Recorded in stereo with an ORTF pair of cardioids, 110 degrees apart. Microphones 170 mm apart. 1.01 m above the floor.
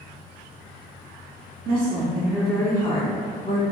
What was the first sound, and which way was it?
A woman speaking, 60° right.